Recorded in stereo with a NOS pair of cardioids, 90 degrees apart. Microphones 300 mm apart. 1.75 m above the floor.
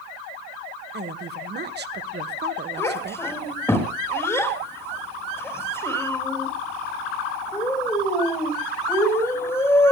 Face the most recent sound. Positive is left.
turn(degrees=10)